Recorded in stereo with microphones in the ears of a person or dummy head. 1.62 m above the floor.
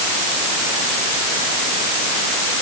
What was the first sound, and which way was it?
Only background noise.